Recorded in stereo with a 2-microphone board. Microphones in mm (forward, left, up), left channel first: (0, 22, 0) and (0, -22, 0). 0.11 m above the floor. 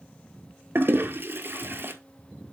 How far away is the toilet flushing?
About 0.9 m.